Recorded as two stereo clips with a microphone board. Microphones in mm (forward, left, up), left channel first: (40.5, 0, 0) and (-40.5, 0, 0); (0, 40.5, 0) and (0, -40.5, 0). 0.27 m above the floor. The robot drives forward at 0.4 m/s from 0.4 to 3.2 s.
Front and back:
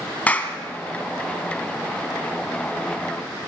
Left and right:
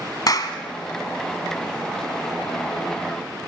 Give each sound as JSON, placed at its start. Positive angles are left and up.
{"t": 0.3, "sound": "a clap", "azimuth_deg": 65, "distance_m": 2.0}